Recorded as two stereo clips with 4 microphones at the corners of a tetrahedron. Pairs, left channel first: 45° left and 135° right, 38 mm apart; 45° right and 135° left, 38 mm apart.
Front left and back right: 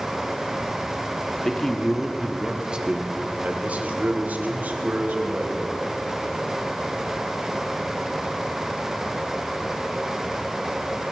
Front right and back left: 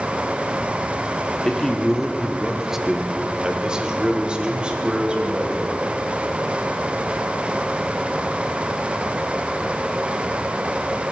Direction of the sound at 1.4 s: 5° left.